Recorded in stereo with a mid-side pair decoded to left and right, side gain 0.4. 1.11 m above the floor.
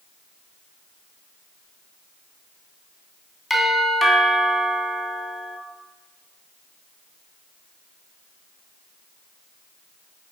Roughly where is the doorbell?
Ahead.